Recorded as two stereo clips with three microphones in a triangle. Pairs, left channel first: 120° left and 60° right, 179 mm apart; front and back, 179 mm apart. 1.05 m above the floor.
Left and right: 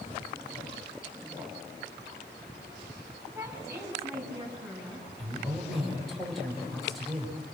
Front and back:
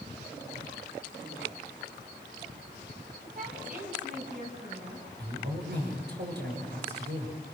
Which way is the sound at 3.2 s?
135° right.